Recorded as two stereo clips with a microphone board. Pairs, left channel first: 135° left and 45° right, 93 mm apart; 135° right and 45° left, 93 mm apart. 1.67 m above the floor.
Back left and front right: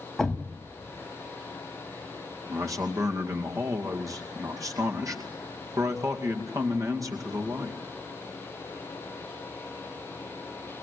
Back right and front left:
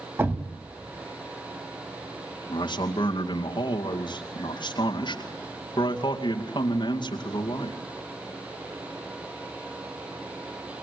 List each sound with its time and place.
0.2 s a thud: 50° left, 1.6 m
2.5 s a man speaking: 100° right, 2 m